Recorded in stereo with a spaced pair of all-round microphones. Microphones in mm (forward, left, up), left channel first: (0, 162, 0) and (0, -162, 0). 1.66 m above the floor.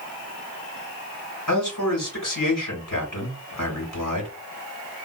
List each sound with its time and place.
1.5 s a man speaking: 75° left (ahead or behind), 2.5 m